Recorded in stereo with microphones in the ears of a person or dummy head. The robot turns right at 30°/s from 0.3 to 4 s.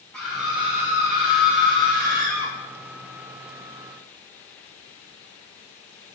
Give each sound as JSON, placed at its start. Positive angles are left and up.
{"t": 0.1, "sound": "a scream", "azimuth_deg": 180, "distance_m": 3.0}